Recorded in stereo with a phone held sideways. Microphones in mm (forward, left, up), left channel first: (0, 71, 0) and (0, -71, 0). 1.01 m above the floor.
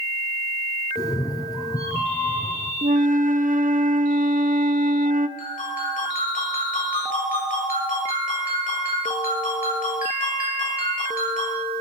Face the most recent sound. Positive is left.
turn(degrees=80)